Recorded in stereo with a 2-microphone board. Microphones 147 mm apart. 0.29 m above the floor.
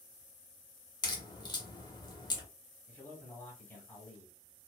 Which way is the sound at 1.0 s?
30° left (ahead or behind).